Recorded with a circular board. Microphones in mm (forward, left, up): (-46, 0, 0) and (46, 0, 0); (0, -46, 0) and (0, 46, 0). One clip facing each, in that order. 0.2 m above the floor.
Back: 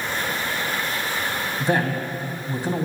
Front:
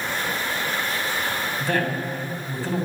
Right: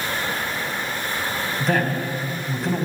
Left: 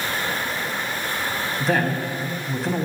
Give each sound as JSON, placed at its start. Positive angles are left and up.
{"t": 1.6, "sound": "a man speaking", "azimuth_deg": 175, "distance_m": 1.3}